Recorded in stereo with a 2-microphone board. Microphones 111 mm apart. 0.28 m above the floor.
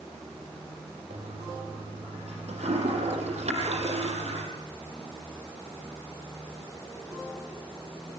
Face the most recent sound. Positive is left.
turn(degrees=-80)